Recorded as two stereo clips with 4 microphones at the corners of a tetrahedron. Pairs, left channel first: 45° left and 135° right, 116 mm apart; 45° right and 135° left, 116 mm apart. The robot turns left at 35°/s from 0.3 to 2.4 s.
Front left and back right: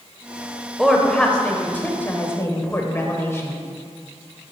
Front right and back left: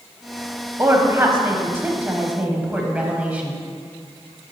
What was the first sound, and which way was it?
A woman speaking, 130° left.